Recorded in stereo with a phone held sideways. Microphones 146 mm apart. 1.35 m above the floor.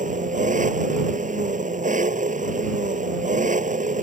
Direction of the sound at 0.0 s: 60° right (ahead or behind).